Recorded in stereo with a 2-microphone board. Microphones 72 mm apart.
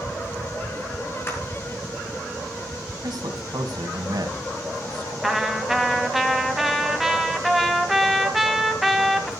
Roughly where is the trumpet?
Centre.